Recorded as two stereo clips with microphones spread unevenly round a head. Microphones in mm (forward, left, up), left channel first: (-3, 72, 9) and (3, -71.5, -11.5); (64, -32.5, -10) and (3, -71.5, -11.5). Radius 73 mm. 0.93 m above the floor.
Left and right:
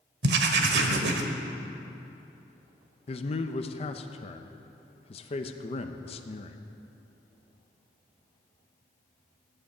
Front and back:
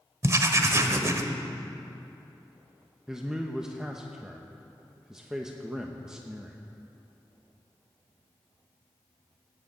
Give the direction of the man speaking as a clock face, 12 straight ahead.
8 o'clock.